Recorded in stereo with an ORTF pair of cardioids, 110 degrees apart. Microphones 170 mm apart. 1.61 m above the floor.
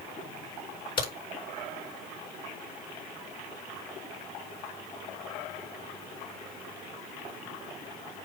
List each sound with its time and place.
1.0 s a crack: 30° left, 6 m